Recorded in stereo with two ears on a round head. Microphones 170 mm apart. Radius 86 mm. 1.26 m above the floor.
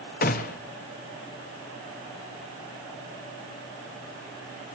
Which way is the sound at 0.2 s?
45° left (ahead or behind).